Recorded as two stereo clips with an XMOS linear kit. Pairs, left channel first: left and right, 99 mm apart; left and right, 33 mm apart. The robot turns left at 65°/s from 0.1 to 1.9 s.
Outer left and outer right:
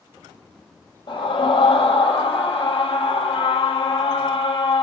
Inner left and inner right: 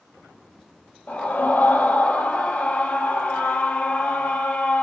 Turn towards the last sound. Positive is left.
turn(degrees=70)